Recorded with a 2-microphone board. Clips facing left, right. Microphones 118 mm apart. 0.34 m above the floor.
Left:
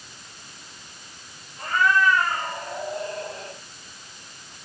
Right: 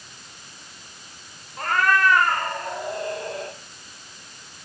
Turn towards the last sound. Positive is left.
turn(degrees=-75)  # may be behind; listen again after turning